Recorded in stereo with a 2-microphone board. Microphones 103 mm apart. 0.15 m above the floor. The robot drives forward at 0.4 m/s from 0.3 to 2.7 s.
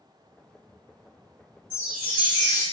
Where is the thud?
No thud in this recording.